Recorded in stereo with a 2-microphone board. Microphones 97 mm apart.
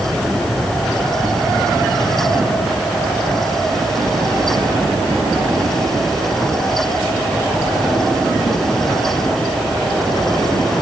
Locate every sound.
Only background noise.